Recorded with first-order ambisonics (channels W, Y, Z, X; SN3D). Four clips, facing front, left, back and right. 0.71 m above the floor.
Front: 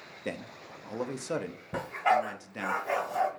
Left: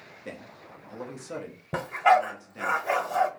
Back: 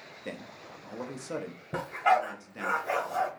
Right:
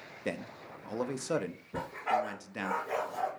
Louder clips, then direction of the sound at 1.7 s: Left 11 dB, back 1 dB; 95° left.